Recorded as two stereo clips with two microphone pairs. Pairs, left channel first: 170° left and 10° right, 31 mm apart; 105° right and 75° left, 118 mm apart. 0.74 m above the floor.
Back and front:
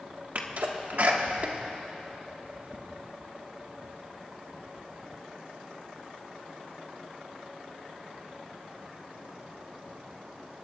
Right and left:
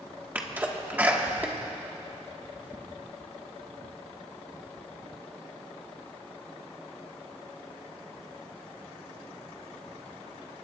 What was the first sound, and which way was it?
A sneeze, straight ahead.